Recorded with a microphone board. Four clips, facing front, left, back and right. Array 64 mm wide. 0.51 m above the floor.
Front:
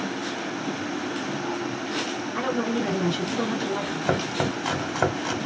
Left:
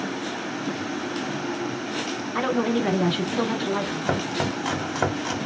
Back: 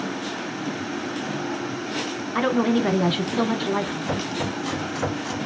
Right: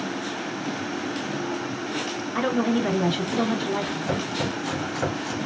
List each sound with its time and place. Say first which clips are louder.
2.4 s a woman speaking: even, back 6 dB; 175° left, 1.0 m
4.0 s chopping: left 1 dB, front 2 dB; 30° left, 1.1 m